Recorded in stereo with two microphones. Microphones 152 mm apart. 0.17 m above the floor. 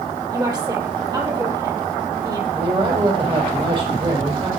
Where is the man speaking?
35° right (ahead or behind), 7 m.